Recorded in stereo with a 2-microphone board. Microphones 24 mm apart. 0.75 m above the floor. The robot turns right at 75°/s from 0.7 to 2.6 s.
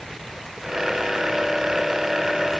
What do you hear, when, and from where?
Only background noise.